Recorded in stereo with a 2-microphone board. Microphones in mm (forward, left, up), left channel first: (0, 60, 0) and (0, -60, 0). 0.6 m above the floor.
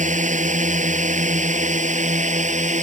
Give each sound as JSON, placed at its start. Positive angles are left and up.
{"t": 0.0, "sound": "a drone", "side_deg": -75}